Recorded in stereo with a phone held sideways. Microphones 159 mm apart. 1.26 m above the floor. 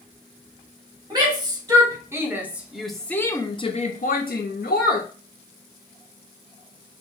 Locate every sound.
1.1 s a shout: 25° right (ahead or behind), 1.5 m; by 5.1 s 80° left, 0.8 m